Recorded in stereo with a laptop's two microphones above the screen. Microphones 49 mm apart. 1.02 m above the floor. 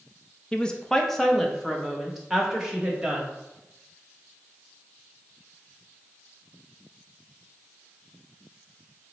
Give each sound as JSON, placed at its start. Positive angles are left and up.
{"t": 0.5, "sound": "a woman speaking", "side_deg": 20, "distance_m": 0.7}